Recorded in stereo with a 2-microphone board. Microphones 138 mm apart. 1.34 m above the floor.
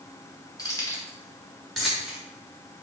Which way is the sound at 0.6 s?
30° left (ahead or behind).